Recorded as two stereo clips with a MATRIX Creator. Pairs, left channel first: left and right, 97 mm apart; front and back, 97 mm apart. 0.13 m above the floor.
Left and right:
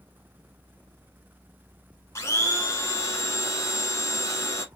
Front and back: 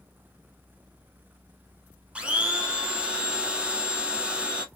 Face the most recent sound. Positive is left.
turn(degrees=110)